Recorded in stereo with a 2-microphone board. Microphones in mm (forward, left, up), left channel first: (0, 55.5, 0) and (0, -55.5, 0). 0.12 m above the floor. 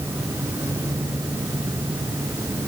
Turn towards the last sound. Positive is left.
No sound to turn to.